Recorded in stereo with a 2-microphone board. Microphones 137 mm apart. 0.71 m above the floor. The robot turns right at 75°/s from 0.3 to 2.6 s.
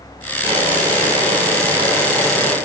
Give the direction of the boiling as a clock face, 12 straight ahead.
5 o'clock.